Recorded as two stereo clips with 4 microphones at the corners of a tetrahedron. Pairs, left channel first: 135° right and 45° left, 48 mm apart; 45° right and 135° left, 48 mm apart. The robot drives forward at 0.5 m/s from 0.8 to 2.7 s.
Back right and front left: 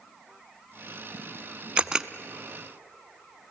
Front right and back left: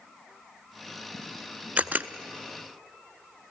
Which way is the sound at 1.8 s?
100° left.